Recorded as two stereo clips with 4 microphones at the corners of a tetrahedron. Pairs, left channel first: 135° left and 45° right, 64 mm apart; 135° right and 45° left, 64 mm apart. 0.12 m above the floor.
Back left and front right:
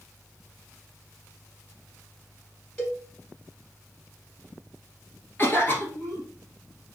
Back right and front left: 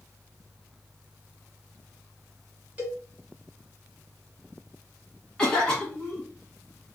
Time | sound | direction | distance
2.8 | a cowbell | 80° left | 1.3 m
5.4 | a cough | 155° left | 1.6 m